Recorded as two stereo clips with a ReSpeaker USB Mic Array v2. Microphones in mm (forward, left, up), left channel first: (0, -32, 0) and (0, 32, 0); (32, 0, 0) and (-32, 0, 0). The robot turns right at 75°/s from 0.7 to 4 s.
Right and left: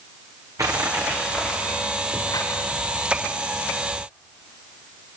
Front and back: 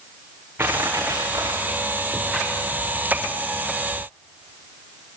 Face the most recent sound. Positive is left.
turn(degrees=10)